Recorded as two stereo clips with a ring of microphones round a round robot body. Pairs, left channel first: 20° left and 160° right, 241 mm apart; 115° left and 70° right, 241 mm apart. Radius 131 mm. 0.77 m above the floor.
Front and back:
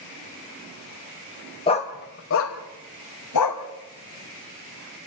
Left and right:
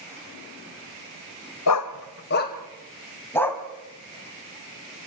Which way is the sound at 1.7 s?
90° left.